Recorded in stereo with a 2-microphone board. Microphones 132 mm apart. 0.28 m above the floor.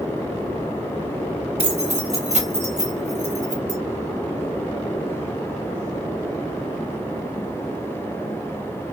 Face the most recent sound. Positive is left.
turn(degrees=-60)  # may be behind; listen again after turning